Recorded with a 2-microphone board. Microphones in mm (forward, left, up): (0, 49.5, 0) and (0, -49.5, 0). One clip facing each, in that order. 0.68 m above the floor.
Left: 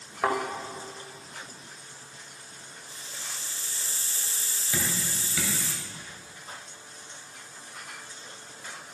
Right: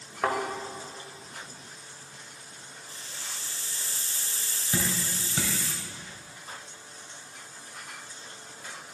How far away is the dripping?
About 1.8 m.